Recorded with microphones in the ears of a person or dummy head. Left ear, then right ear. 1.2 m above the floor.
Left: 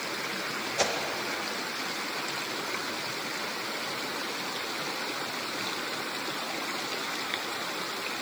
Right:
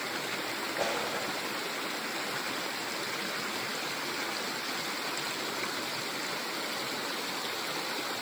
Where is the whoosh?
65° left (ahead or behind), 1.4 m.